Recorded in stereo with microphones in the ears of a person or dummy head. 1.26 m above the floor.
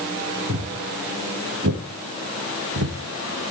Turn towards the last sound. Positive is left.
turn(degrees=-65)  # may be behind; listen again after turning